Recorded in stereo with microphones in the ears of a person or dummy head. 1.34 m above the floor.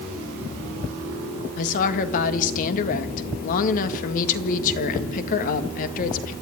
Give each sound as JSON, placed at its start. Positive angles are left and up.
{"t": 1.6, "sound": "a woman speaking", "side_deg": 45, "distance_m": 1.8}